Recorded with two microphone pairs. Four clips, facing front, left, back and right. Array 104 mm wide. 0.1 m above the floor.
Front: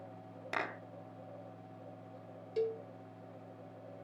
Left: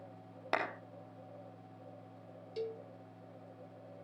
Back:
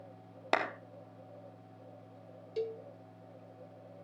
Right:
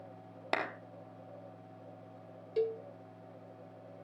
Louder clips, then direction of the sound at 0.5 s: Even, back 7 dB; 160° right.